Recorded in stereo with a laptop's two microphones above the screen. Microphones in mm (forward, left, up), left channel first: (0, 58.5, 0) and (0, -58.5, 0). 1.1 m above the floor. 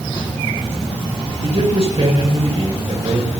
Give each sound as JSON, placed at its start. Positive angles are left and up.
{"t": 1.4, "sound": "a man speaking", "side_deg": -60, "distance_m": 5.0}